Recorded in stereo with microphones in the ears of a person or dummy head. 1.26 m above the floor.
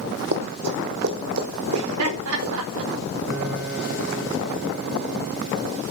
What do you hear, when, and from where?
0.3 s running footsteps: 60° right (ahead or behind), 2.5 m; by 2.5 s 75° right (ahead or behind), 5 m
1.7 s laughter: 85° right, 4 m
3.3 s a piano: 70° right (ahead or behind), 3.5 m